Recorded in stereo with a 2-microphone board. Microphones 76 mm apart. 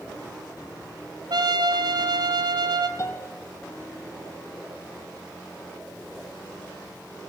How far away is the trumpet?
About 1.7 m.